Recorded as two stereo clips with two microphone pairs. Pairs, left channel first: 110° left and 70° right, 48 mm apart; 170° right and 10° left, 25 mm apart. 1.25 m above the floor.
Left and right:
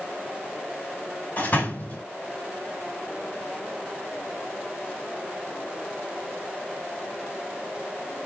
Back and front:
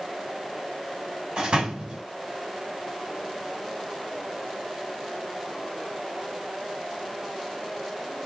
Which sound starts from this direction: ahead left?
A door slam, at 1.4 s.